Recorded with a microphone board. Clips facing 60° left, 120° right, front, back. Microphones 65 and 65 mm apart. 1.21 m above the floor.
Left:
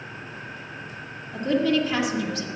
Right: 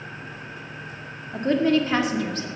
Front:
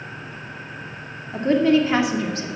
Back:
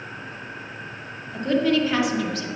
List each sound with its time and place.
1.3 s a woman speaking: 65° right, 2 m